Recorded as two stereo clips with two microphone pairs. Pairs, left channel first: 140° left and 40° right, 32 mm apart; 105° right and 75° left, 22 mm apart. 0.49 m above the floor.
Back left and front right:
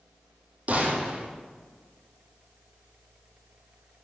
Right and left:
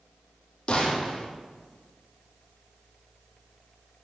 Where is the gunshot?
75° right, 3.5 m.